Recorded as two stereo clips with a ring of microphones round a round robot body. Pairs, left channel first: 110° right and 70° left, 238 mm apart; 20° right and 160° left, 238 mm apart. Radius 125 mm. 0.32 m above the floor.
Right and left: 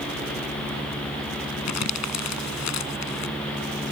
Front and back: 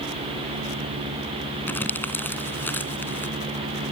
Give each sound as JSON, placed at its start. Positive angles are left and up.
{"t": 1.7, "sound": "crumpling", "azimuth_deg": -105}